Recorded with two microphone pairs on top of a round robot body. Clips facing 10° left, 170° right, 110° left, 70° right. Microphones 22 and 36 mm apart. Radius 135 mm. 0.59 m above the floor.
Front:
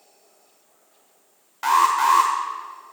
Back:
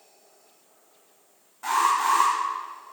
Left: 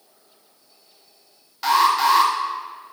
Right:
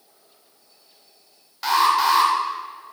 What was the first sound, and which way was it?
An alarm, 20° left.